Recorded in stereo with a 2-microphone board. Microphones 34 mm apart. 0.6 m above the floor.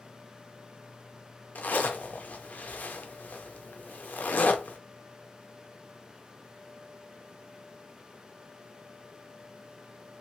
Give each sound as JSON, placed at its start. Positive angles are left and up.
{"t": 1.6, "sound": "a zipper", "side_deg": 60, "distance_m": 0.6}